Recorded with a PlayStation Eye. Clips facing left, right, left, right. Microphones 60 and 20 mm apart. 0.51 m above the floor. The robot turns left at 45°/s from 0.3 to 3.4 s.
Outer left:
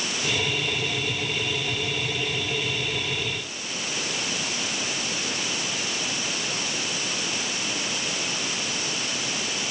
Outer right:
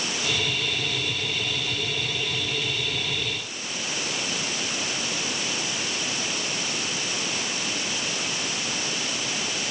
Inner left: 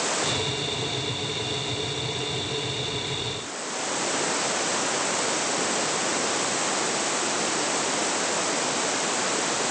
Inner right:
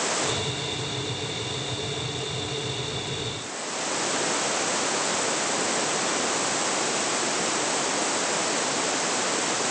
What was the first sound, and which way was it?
Only background noise.